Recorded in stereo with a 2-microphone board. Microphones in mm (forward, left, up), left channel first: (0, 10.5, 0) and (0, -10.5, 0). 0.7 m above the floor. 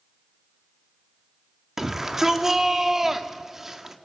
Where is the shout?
15° right (ahead or behind), 1.5 m.